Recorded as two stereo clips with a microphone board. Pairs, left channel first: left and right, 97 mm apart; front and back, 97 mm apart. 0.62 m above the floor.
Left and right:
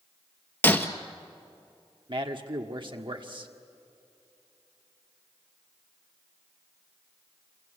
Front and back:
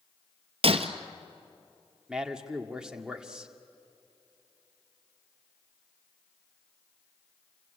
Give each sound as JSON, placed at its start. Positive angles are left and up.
{"t": 0.6, "sound": "breaking glass", "azimuth_deg": 160, "distance_m": 1.5}
{"t": 2.1, "sound": "a man speaking", "azimuth_deg": -100, "distance_m": 1.7}